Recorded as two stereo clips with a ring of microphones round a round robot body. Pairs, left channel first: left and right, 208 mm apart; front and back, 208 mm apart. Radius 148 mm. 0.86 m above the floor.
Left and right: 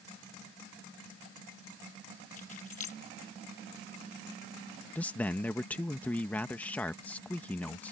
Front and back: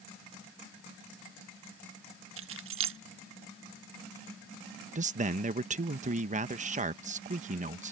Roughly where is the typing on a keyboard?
No typing on a keyboard in this recording.